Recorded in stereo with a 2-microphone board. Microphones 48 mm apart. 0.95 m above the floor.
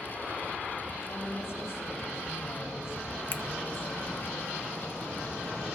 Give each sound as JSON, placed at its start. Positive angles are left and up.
{"t": 1.0, "sound": "a woman speaking", "side_deg": 60, "distance_m": 7.5}
{"t": 3.3, "sound": "a finger snap", "side_deg": 50, "distance_m": 0.8}